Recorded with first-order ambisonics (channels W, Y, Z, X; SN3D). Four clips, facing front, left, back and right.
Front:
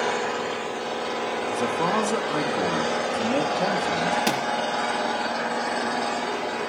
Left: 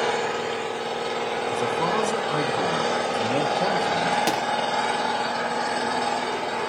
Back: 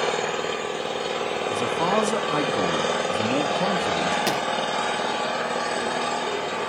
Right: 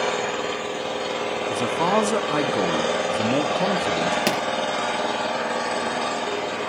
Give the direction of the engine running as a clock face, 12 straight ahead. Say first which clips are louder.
Even, back 1 dB; 4 o'clock.